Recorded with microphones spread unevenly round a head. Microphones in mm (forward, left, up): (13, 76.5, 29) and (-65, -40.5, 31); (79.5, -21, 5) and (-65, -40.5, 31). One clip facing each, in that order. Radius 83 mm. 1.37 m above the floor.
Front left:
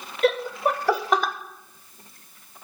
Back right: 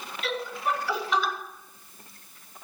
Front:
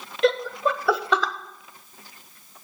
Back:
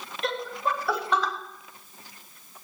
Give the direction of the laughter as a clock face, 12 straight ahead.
12 o'clock.